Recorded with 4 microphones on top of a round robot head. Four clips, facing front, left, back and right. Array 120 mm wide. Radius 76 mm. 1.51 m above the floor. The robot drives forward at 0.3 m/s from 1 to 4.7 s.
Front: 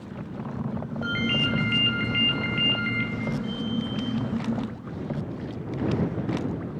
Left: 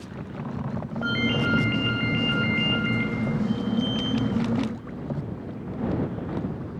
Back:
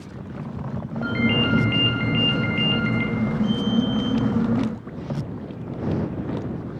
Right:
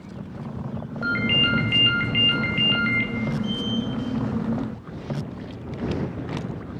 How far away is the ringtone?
About 5.5 m.